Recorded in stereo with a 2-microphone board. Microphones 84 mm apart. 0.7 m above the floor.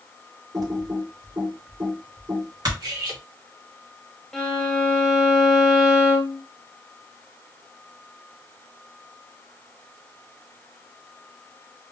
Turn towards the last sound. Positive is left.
turn(degrees=5)  # may be behind; listen again after turning